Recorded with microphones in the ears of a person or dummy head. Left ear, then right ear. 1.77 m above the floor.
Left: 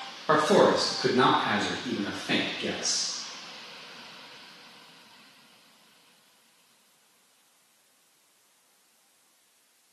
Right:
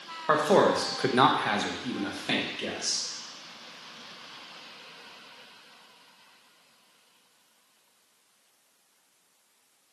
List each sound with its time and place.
0.3 s a man speaking: 20° right (ahead or behind), 0.7 m; by 3.0 s 55° right (ahead or behind), 1.6 m